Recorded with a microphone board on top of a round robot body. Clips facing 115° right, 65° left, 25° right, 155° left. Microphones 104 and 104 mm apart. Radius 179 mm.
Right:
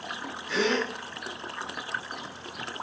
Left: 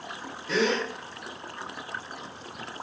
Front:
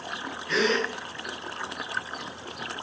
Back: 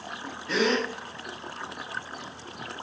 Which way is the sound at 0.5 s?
90° left.